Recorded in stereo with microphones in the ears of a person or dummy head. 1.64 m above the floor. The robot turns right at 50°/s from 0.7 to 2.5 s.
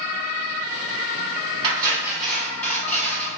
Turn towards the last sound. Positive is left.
turn(degrees=10)